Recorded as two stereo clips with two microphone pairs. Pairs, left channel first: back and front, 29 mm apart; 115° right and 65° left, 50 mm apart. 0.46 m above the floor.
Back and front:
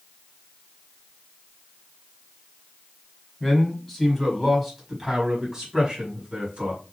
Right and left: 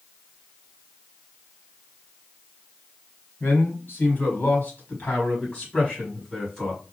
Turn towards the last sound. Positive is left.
turn(degrees=-40)